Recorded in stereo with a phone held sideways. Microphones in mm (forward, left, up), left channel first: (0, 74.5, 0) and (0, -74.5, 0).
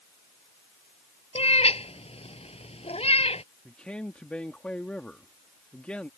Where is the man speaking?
5° left (ahead or behind).